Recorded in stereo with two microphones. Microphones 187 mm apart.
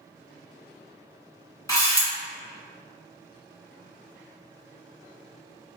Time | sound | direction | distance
1.7 | a camera shutter | 15° left (ahead or behind) | 1.7 m